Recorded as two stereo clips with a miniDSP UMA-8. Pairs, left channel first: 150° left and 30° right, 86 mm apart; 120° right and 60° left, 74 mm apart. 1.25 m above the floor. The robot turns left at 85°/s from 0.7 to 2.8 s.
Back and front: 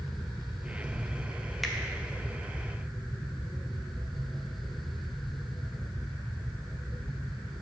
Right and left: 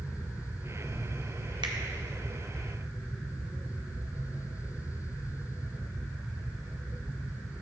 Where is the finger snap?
60° left, 0.7 m; by 1.8 s 50° left, 0.7 m.